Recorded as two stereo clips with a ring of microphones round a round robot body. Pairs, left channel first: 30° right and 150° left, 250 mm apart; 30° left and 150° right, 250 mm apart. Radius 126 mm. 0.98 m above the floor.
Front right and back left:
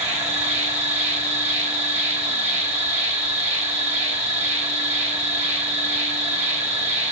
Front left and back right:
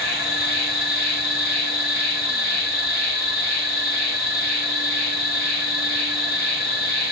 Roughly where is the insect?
Left.